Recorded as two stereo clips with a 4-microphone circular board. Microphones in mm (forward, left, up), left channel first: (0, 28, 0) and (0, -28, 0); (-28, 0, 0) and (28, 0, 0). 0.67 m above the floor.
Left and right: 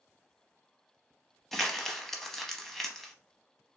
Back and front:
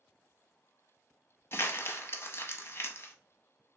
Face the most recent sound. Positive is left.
turn(degrees=175)